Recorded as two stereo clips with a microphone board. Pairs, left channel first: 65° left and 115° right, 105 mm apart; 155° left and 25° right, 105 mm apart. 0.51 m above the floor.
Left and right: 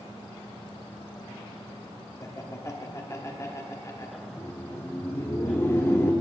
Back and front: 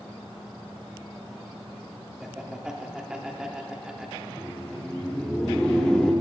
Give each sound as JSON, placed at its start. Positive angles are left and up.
{"t": 2.2, "sound": "laughter", "azimuth_deg": 55, "distance_m": 0.7}
{"t": 4.3, "sound": "laughter", "azimuth_deg": 85, "distance_m": 0.7}